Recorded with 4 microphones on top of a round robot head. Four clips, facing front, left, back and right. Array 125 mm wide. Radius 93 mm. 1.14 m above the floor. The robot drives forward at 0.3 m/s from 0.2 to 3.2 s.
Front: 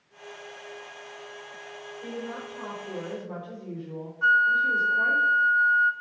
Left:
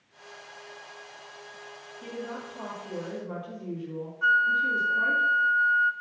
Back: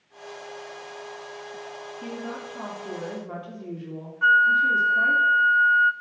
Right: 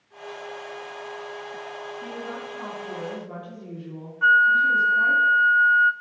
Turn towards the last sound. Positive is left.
turn(degrees=-130)